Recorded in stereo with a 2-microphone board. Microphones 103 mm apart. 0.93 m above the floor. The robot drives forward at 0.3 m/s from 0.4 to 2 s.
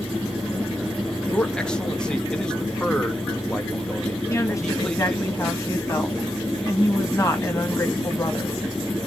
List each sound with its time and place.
1.3 s a man speaking: 10° left (ahead or behind), 1.1 m
4.3 s a woman speaking: 30° left (ahead or behind), 1.6 m